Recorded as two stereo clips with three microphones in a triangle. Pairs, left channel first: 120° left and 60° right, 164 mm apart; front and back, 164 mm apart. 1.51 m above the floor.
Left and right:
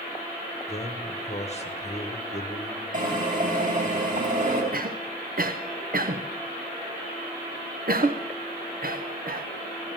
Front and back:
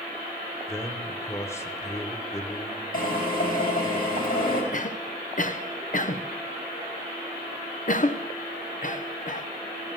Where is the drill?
25° right, 3.5 m.